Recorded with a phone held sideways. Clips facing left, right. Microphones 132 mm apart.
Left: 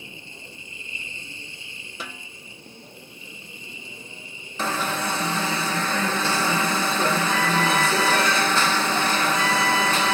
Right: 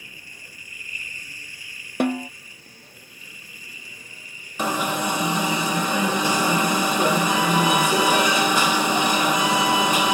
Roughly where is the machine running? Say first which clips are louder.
Left 5 dB; left.